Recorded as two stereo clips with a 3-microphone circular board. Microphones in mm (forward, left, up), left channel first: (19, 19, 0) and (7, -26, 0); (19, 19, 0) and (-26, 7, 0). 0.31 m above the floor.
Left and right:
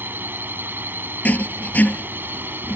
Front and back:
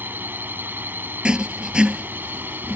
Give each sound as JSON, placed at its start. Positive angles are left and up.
{"t": 0.0, "sound": "a drone", "azimuth_deg": -135}
{"t": 1.2, "sound": "writing", "azimuth_deg": 125}